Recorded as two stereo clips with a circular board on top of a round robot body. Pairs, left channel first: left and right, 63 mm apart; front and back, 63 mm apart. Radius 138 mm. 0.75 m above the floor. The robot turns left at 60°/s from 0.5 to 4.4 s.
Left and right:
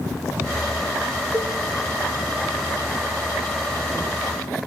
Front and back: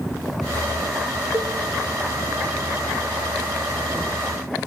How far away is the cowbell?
About 0.5 m.